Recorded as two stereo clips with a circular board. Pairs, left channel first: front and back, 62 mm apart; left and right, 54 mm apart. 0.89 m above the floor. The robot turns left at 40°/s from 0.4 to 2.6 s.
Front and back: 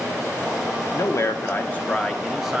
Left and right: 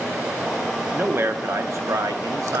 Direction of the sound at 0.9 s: 35° right.